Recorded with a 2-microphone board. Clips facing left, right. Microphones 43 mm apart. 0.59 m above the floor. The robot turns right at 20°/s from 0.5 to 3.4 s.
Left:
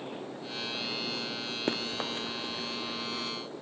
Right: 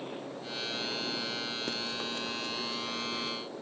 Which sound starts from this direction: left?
Running footsteps, at 1.7 s.